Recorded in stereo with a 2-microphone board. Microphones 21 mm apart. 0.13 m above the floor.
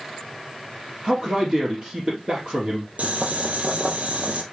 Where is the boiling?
70° right (ahead or behind), 2.0 m.